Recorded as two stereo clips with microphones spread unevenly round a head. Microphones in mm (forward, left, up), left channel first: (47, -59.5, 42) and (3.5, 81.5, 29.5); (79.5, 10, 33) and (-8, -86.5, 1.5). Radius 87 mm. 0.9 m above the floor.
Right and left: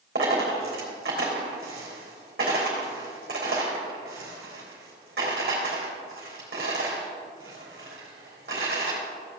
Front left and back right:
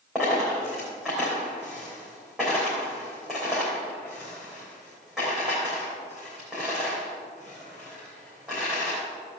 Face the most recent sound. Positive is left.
turn(degrees=140)